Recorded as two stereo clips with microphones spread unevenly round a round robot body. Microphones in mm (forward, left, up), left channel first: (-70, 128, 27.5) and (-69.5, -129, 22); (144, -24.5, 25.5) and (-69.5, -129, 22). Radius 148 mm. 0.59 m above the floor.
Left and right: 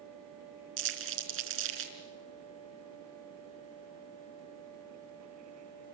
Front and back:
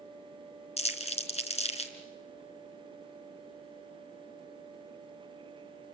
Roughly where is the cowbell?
I don't hear a cowbell.